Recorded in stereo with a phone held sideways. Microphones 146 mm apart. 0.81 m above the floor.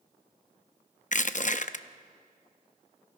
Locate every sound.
1.1 s crushing: 60° left (ahead or behind), 0.6 m